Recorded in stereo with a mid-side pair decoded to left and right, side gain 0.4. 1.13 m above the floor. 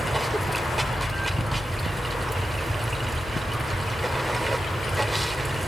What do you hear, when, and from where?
0.0 s running water: 10° right, 2.5 m